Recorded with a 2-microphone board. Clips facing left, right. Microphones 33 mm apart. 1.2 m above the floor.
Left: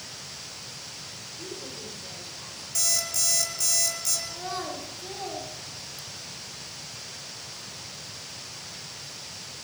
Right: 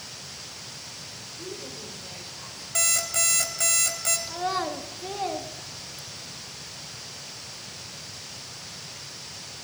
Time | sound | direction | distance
1.4 | a woman speaking | centre (ahead or behind) | 4 m
2.8 | an alarm clock | 50° right (ahead or behind) | 3 m
4.3 | a child speaking | 35° right (ahead or behind) | 1.8 m